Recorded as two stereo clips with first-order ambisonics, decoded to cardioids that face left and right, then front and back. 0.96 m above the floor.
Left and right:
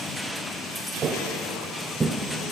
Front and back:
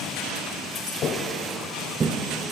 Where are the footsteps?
35° right, 1.3 m; by 2.2 s 160° right, 1.0 m.